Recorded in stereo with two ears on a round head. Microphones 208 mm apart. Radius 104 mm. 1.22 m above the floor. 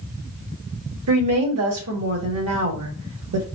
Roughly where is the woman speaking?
Right.